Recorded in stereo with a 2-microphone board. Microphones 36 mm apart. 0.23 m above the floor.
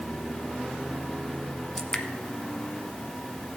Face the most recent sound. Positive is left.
turn(degrees=10)  # may be behind; listen again after turning